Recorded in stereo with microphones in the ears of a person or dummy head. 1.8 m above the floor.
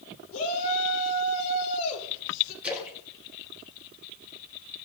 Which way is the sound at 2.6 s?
10° right (ahead or behind).